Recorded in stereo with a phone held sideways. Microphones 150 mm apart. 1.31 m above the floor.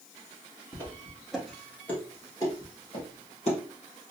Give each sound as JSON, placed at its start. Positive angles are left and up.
{"t": 0.7, "sound": "footsteps", "side_deg": -20, "distance_m": 1.3}